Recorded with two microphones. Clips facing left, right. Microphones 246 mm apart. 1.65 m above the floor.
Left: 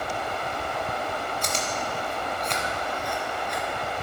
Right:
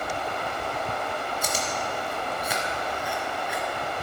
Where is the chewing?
5° right (ahead or behind), 1.1 m.